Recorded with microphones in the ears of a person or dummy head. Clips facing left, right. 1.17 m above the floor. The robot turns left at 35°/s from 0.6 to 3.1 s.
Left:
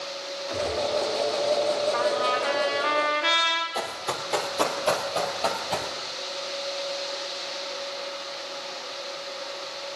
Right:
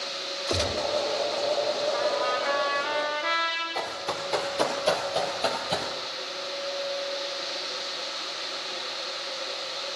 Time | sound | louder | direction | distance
0.5 | a gunshot | left 1 dB | 50° right (ahead or behind) | 1.0 m
1.9 | a trumpet | left 2 dB | 95° left | 3 m
3.8 | running footsteps | right 2 dB | 15° left (ahead or behind) | 1.8 m